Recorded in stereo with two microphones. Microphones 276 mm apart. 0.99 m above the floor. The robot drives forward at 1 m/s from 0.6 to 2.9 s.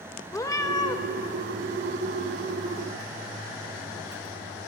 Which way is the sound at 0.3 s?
15° left (ahead or behind).